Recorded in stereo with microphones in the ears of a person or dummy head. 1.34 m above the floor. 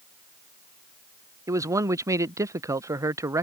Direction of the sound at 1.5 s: 15° right (ahead or behind).